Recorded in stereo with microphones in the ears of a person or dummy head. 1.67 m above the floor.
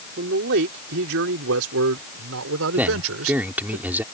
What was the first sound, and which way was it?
A man speaking, 60° right (ahead or behind).